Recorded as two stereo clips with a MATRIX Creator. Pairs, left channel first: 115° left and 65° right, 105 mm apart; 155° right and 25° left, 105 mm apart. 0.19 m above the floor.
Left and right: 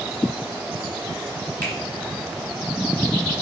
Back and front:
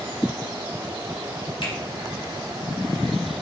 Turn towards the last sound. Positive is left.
turn(degrees=180)